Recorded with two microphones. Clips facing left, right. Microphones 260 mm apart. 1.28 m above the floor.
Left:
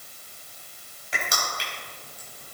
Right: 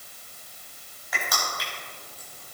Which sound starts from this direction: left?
Crushing, at 1.1 s.